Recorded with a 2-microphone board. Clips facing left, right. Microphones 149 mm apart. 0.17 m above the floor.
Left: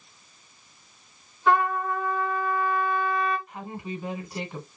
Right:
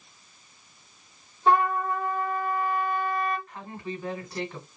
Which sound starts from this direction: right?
A trumpet, at 1.5 s.